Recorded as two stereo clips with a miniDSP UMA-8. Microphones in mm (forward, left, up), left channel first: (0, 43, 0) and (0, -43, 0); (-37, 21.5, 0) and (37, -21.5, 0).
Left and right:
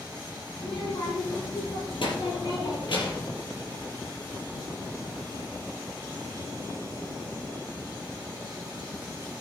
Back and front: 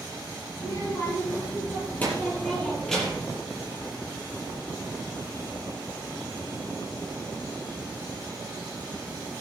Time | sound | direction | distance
0.6 | a child speaking | 100° left | 5.5 m